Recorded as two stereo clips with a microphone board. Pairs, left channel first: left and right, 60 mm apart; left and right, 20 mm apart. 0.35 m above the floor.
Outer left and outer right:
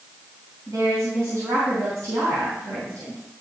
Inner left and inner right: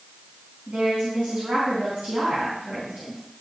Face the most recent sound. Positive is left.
turn(degrees=-70)  # may be behind; listen again after turning